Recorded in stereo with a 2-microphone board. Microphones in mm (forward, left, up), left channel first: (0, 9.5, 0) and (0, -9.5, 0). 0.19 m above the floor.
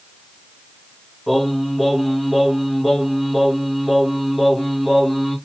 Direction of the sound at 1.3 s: 10° right (ahead or behind).